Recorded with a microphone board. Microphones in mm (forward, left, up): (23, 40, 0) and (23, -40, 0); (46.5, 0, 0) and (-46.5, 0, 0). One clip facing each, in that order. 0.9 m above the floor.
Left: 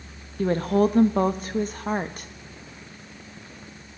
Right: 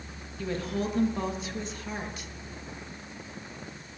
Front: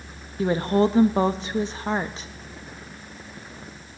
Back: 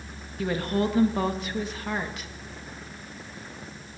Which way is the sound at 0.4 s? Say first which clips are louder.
Left 10 dB, front 6 dB; 55° left.